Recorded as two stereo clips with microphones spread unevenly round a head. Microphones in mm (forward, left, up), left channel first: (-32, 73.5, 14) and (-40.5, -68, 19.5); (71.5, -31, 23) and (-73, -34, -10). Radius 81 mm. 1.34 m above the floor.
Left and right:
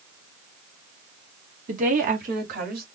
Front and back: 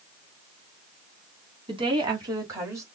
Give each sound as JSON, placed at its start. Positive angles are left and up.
{"t": 1.7, "sound": "a woman speaking", "azimuth_deg": -125, "distance_m": 2.5}